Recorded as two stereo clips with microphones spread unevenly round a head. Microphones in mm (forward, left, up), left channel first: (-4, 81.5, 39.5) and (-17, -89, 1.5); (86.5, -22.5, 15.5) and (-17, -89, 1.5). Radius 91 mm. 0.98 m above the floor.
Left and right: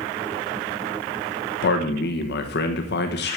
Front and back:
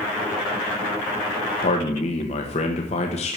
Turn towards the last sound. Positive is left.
turn(degrees=70)